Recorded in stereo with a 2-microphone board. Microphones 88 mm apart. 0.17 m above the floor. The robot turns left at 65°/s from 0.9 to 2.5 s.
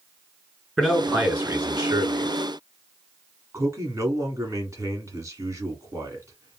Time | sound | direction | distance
0.8 | a man speaking | straight ahead | 2 m
3.5 | a man speaking | 35° right (ahead or behind) | 1.3 m